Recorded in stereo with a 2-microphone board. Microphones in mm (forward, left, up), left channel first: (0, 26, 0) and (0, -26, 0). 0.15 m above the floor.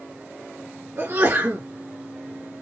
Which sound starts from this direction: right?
A sneeze, at 1.0 s.